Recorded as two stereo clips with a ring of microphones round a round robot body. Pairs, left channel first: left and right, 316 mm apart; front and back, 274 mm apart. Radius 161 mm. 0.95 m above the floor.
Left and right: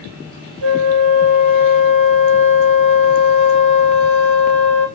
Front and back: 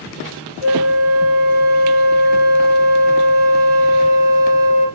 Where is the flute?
110° right, 3 m.